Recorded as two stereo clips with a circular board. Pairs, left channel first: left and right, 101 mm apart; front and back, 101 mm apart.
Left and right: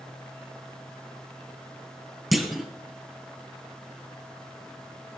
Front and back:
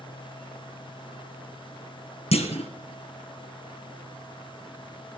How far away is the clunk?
About 1.4 m.